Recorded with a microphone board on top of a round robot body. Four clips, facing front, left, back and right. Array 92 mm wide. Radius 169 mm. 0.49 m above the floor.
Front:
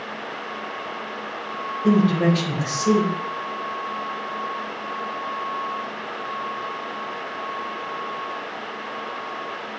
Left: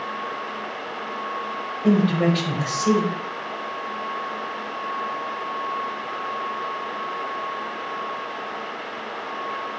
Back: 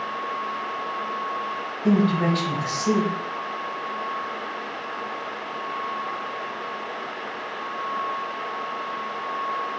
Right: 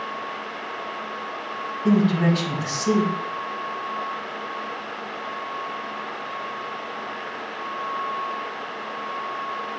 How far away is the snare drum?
No snare drum in this recording.